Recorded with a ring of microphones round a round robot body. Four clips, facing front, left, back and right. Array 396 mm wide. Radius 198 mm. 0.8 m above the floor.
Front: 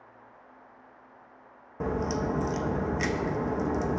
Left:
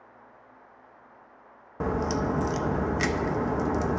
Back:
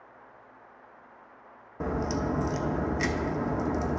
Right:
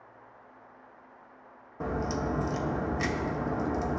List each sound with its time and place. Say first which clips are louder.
1.8 s a crack: left 4 dB, even; 85° left, 0.7 m